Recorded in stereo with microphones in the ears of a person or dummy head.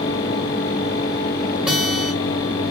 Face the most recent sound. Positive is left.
turn(degrees=0)  # may be behind; listen again after turning